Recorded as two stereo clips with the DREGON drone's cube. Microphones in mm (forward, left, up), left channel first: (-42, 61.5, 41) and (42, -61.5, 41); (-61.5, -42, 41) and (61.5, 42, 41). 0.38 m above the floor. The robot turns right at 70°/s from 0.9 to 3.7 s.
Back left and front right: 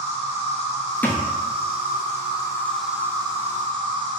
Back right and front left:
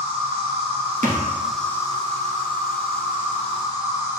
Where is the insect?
80° left, 0.8 m; by 4.2 s 85° right, 0.8 m.